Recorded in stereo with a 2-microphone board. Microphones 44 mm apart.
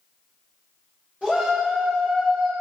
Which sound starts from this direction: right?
A shout, at 1.2 s.